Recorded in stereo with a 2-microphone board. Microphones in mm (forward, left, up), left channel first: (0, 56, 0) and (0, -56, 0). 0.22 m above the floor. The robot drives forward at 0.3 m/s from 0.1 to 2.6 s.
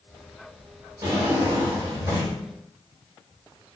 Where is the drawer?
30° right (ahead or behind), 1.5 m; by 2.3 s 25° right (ahead or behind), 1.8 m.